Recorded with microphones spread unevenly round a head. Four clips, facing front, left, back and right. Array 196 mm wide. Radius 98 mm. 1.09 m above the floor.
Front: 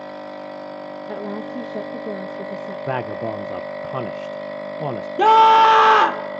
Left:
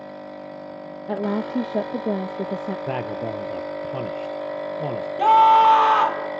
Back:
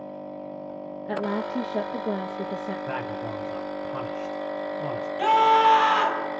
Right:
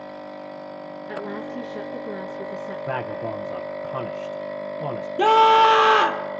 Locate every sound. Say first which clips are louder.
1.1 s a woman speaking: left 8 dB, back 2 dB; 90° left, 0.8 m
2.9 s a man speaking: right 2 dB, front 6 dB; 20° left, 0.6 m
5.2 s a scream: left 1 dB, front 7 dB; 25° right, 1.4 m